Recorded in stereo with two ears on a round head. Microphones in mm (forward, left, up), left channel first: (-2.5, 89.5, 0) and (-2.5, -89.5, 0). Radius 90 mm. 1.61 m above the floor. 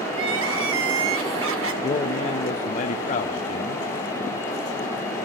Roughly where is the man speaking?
Left.